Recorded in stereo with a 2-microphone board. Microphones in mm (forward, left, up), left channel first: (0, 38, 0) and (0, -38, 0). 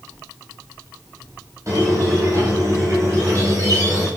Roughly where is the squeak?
Right.